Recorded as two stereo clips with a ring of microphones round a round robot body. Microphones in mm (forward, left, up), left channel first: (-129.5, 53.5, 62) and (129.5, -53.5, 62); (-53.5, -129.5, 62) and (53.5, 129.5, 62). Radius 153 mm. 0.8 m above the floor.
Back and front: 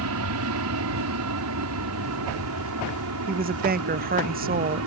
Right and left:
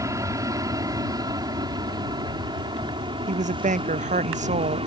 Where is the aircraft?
10° right; by 4.9 s straight ahead.